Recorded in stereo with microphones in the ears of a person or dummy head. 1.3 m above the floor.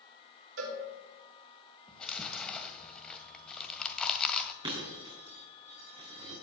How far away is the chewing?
About 1.9 m.